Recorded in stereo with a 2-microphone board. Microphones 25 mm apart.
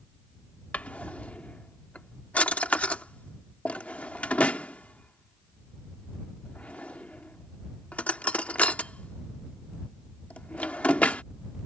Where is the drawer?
65° left (ahead or behind).